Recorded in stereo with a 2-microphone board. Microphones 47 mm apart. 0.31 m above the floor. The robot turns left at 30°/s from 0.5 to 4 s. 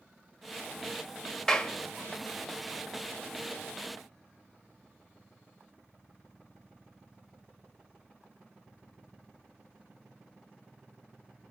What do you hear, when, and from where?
1.5 s a clap: 15° left (ahead or behind), 0.9 m